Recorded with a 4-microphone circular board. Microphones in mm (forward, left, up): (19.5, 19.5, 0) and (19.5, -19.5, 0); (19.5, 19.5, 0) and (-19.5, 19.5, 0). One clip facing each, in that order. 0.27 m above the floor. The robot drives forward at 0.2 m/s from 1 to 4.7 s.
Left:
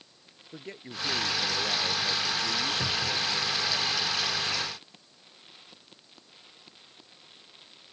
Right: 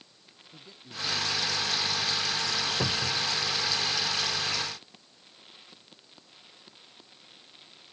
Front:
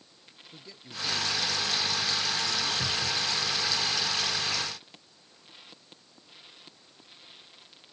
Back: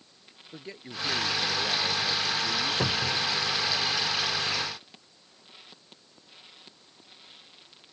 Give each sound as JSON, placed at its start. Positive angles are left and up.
{"t": 0.5, "sound": "a man speaking", "azimuth_deg": 125}
{"t": 2.8, "sound": "a cupboard door", "azimuth_deg": -150}